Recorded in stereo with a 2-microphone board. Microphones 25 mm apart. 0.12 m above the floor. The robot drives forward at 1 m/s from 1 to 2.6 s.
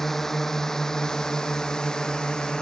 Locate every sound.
0.0 s a drone: 10° left (ahead or behind); by 2.6 s 30° left (ahead or behind)